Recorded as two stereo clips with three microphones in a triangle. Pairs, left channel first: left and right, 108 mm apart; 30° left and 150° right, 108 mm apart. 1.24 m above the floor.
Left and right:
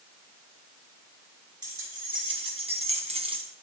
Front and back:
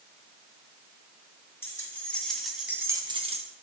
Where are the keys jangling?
40° right, 2.5 m; by 3.4 s 135° right, 1.0 m.